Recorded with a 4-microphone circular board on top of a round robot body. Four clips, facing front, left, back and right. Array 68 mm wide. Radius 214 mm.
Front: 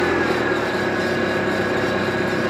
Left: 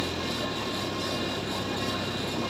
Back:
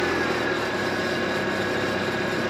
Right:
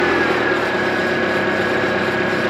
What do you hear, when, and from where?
0.0 s an engine running: 70° right